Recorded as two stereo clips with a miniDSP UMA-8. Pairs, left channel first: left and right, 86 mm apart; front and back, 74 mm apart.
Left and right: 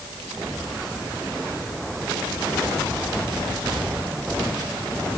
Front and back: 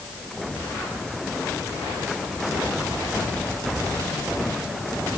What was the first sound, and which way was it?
Only background noise.